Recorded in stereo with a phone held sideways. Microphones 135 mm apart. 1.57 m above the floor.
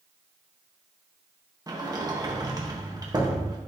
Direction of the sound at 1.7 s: 30° right (ahead or behind).